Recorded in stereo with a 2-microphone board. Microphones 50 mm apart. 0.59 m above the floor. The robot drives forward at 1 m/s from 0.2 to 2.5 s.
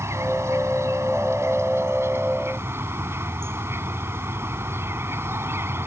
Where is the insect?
80° right; by 5.9 s 60° right (ahead or behind).